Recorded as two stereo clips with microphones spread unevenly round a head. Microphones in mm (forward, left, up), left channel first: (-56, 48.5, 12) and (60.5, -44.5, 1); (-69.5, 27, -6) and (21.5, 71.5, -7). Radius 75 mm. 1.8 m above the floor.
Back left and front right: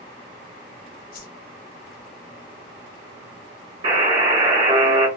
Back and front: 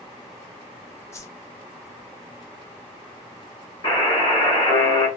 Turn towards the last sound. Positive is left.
turn(degrees=-100)